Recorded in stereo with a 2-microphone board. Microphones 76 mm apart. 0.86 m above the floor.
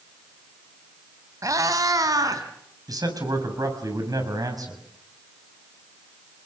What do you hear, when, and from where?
1.4 s a cat meowing: 45° right (ahead or behind), 2.5 m; by 2.4 s 55° right (ahead or behind), 4 m
2.9 s a man speaking: 55° right (ahead or behind), 6.5 m